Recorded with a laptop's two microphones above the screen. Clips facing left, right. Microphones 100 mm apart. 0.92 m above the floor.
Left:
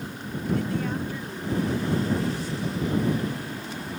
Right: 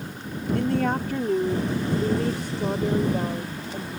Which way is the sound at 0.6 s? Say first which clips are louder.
Right 8 dB; 60° right (ahead or behind).